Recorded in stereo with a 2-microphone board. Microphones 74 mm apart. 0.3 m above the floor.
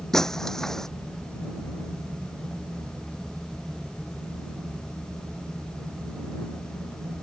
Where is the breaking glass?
5° left (ahead or behind).